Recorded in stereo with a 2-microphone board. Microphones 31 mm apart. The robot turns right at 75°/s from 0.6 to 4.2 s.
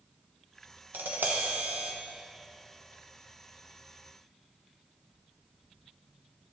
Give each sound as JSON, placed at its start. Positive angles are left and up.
{"t": 0.9, "sound": "tapping", "azimuth_deg": -105, "distance_m": 1.0}